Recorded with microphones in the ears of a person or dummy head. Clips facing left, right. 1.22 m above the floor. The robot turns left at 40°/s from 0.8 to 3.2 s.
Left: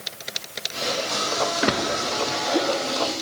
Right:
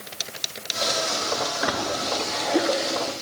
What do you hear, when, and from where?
1.6 s a splash: 35° left (ahead or behind), 0.6 m; by 3.1 s 25° right (ahead or behind), 0.6 m